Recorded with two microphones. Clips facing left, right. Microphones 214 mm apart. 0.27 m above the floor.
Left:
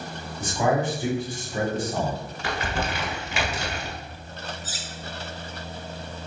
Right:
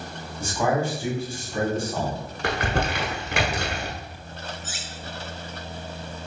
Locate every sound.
0.4 s a man speaking: 20° left (ahead or behind), 1.8 m
2.4 s crumpling: 65° right (ahead or behind), 0.9 m
4.6 s cutlery clinking: 35° left (ahead or behind), 0.6 m